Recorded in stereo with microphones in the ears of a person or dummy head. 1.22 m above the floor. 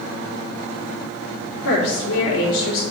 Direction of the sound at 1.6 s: 80° left.